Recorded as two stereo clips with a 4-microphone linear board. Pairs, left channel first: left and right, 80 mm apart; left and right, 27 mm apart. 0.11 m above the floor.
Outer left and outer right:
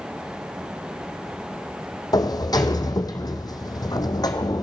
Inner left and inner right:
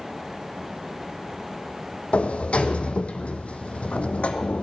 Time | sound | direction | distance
2.1 | a sliding door | 55° left (ahead or behind) | 1.0 m